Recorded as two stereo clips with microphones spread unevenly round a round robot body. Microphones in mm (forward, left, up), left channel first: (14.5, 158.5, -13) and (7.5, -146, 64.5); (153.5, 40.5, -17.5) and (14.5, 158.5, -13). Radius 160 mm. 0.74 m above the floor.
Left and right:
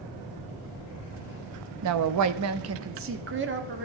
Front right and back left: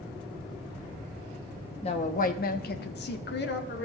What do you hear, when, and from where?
1.8 s a woman speaking: 85° right, 0.7 m; by 3.9 s 30° right, 1.5 m